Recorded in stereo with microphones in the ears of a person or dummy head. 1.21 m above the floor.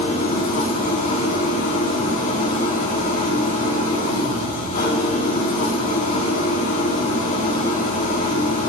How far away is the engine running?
About 1.9 m.